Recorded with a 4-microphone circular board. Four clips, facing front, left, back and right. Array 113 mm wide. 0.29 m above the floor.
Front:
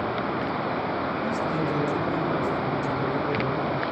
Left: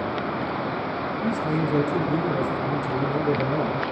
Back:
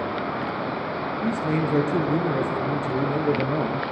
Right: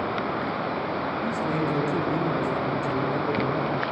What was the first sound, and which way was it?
A man speaking, straight behind.